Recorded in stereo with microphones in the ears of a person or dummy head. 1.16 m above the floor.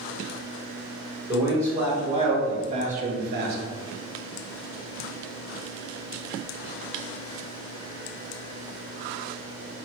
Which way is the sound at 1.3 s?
15° right (ahead or behind).